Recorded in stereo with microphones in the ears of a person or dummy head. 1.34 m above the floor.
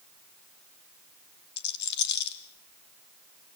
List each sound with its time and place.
1.6 s a rattle: 60° left (ahead or behind), 2.5 m